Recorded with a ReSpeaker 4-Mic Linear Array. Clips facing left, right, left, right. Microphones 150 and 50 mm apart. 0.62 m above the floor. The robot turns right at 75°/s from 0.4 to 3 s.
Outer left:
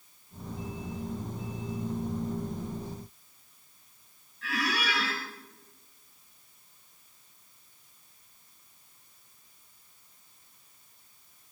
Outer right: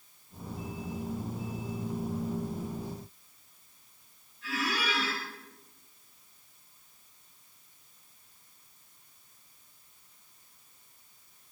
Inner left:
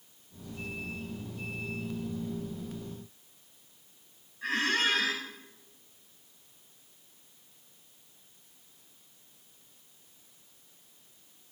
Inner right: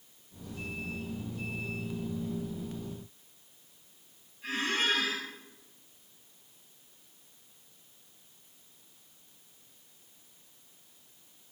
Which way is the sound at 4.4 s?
75° left (ahead or behind).